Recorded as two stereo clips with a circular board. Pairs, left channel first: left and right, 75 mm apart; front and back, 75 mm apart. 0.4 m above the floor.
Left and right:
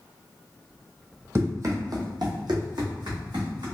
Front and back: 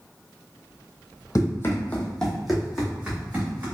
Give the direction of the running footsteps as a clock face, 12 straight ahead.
1 o'clock.